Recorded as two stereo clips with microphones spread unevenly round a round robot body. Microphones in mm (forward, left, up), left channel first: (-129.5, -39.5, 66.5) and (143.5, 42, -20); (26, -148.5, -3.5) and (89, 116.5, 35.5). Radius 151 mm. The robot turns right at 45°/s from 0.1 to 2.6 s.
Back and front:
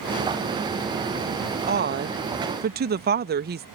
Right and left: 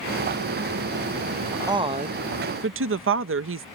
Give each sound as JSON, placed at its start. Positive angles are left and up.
{"t": 1.7, "sound": "a woman speaking", "azimuth_deg": -5}